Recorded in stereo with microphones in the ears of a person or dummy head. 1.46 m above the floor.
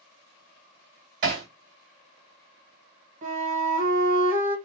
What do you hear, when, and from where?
1.2 s hammering: 50° right (ahead or behind), 1.7 m
3.2 s a flute: 40° right (ahead or behind), 0.9 m